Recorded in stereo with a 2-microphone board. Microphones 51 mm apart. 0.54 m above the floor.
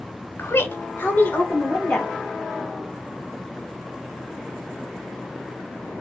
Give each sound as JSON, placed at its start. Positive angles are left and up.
{"t": 0.4, "sound": "a woman speaking", "side_deg": 50, "distance_m": 1.0}